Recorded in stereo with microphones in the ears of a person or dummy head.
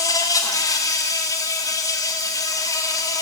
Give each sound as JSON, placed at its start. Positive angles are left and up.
{"t": 0.0, "sound": "an insect", "side_deg": 15, "distance_m": 2.0}